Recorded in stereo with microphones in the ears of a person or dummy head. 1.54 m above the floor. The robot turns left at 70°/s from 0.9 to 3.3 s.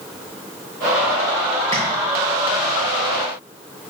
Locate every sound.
1.7 s tapping: 20° left (ahead or behind), 2.5 m; by 1.8 s 10° left (ahead or behind), 2.5 m